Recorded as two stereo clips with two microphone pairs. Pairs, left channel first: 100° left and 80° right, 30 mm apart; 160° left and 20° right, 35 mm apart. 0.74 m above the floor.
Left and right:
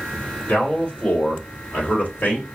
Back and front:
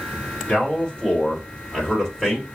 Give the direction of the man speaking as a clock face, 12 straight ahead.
8 o'clock.